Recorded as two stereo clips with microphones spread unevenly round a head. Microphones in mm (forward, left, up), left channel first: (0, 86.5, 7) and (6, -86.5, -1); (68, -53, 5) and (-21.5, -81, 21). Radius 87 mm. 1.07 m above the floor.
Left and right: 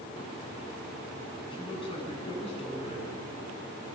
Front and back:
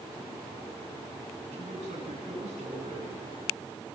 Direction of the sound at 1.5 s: 155° left.